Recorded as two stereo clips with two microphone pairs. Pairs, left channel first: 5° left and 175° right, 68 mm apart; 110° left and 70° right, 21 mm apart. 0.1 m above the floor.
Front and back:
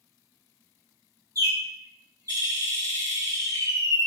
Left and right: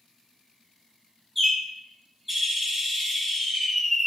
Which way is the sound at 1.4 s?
170° right.